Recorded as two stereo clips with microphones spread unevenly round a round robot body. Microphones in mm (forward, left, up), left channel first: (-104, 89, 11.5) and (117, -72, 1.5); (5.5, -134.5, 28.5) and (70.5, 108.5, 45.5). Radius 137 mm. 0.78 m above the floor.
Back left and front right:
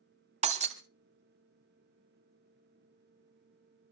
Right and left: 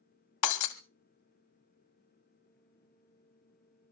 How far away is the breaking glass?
About 1.1 m.